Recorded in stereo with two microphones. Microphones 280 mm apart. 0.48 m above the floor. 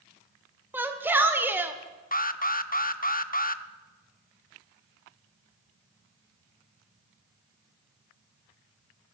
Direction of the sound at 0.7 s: 5° right (ahead or behind).